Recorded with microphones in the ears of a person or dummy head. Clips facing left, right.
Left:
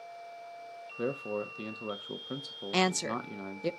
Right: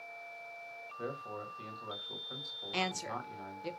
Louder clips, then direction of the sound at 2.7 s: Left 8 dB; 60° left (ahead or behind).